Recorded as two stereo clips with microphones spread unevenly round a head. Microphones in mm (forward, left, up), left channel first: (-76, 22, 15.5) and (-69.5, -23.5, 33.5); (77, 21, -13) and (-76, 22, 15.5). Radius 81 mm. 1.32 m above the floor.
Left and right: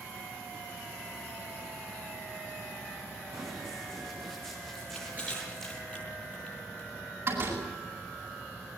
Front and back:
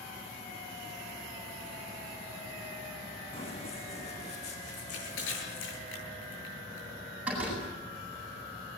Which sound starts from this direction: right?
A door slam, at 7.3 s.